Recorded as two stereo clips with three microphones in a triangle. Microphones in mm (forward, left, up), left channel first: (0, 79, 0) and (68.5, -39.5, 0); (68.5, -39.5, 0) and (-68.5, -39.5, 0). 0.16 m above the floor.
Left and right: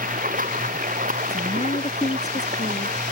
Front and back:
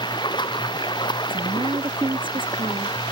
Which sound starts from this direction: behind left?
A woman speaking, at 1.3 s.